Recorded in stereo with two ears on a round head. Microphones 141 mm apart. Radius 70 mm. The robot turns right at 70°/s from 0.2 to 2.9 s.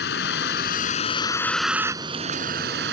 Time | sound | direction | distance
0.0 | a vehicle | 80° left | ?